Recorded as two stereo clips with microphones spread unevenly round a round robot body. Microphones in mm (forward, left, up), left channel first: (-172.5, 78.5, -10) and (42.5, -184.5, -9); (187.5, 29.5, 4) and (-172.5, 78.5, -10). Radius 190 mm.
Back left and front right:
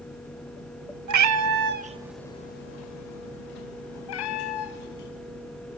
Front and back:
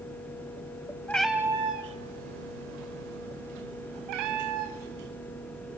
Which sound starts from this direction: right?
A cat meowing, at 1.1 s.